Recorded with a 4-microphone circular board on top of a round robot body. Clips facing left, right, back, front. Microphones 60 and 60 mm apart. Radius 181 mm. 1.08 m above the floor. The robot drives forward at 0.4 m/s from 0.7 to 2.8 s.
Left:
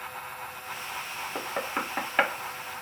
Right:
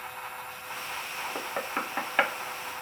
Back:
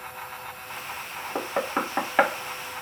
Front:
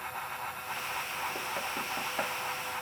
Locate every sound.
1.4 s knocking: 175° left